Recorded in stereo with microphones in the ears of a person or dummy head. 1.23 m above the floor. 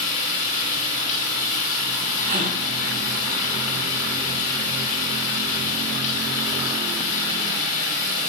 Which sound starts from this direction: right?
A gasp, at 2.2 s.